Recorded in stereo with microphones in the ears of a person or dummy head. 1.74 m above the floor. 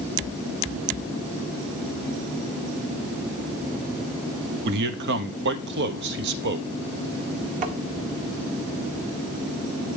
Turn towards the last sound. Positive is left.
turn(degrees=-40)  # may be behind; listen again after turning